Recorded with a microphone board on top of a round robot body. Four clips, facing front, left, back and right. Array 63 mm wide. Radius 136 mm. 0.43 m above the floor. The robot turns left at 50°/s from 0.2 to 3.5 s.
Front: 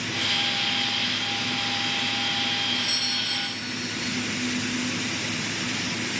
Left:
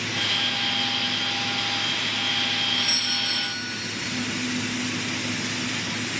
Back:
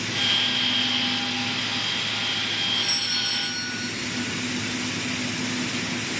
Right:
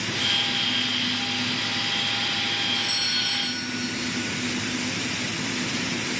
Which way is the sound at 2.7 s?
155° left.